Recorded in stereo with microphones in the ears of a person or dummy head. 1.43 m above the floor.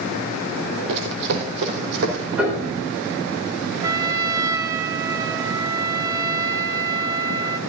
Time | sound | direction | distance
0.9 | running footsteps | 60° right (ahead or behind) | 3 m
2.4 | a piano | 10° right (ahead or behind) | 4 m
3.8 | a trumpet | 15° right (ahead or behind) | 0.9 m